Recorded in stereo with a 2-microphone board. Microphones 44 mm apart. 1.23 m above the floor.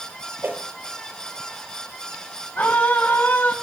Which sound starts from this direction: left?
A scream, at 2.5 s.